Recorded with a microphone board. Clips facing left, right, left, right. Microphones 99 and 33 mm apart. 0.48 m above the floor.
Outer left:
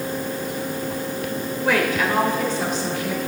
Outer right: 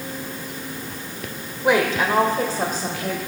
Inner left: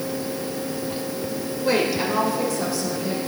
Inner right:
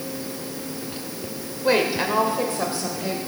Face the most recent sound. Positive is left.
turn(degrees=-50)  # may be behind; listen again after turning